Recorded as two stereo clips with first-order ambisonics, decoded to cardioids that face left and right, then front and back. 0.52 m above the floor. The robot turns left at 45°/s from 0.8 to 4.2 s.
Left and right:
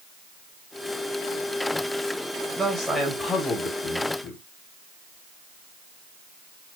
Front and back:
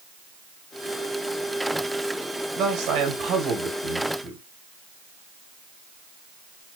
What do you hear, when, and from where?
2.6 s a man speaking: 160° right, 3 m; by 4.4 s 125° left, 3 m